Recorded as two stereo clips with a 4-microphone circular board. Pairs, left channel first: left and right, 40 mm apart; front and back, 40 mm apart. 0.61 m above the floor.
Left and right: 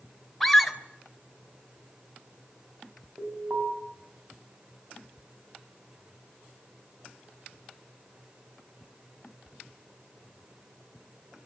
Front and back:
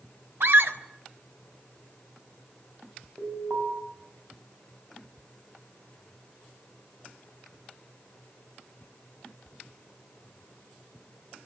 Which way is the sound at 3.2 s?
135° right.